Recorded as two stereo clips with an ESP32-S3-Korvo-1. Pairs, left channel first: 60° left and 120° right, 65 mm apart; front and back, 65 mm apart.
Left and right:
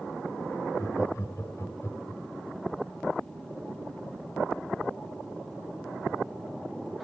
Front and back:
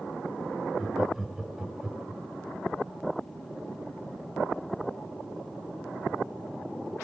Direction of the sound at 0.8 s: 95° left.